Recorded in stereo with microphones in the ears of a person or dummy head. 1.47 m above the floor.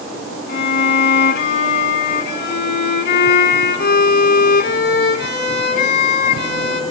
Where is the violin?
65° left (ahead or behind), 3 m.